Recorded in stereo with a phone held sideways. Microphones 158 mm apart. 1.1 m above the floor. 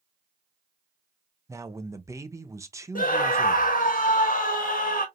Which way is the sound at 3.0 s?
60° left (ahead or behind).